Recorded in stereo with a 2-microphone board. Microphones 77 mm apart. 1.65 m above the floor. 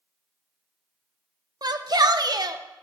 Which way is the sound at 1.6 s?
60° right (ahead or behind).